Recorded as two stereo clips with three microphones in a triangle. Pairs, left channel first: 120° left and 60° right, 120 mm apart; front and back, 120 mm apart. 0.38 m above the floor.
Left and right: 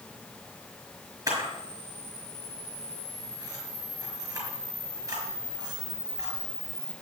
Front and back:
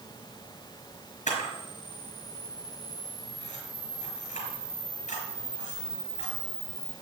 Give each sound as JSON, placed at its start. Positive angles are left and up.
{"t": 1.3, "sound": "a camera shutter", "azimuth_deg": 0, "distance_m": 5.0}